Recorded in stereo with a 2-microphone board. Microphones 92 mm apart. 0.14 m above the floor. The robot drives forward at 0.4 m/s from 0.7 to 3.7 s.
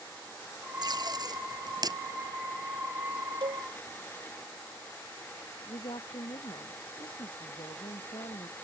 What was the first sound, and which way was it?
Tape being pulled, 50° right (ahead or behind).